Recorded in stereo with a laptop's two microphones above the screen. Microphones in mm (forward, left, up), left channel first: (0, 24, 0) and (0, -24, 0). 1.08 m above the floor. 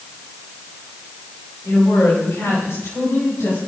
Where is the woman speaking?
85° left, 6.5 m.